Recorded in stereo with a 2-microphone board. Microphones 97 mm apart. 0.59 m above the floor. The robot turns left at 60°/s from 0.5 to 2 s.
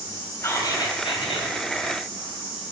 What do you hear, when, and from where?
0.4 s whispering: 150° left, 2.5 m; by 1.5 s 90° left, 2.5 m